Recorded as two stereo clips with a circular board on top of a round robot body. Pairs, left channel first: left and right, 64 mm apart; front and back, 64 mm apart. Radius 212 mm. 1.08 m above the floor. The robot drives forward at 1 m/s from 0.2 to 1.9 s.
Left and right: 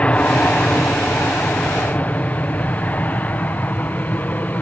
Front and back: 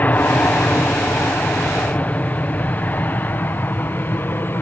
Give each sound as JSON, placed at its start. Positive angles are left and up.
{"t": 0.0, "sound": "an aircraft", "azimuth_deg": 35}